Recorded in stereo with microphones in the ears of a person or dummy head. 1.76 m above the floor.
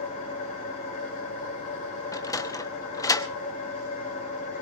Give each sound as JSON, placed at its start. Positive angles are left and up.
{"t": 0.0, "sound": "an engine running", "side_deg": 40, "distance_m": 5.0}
{"t": 2.1, "sound": "a sliding door", "side_deg": 15, "distance_m": 0.7}